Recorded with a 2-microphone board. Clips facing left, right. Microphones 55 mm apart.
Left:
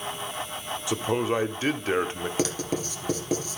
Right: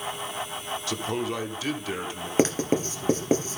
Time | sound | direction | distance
0.9 | a man speaking | 15° left (ahead or behind) | 1.1 m
2.4 | writing | 35° right (ahead or behind) | 2 m